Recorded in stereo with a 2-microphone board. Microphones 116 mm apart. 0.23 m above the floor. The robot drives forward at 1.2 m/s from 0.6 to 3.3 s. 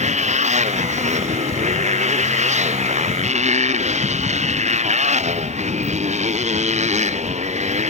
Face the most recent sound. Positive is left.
turn(degrees=-80)